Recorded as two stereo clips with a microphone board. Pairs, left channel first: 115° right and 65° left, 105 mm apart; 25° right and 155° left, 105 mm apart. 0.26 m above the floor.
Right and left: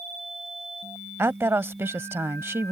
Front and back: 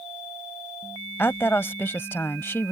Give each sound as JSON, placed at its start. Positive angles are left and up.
{"t": 1.2, "sound": "a woman speaking", "azimuth_deg": 25}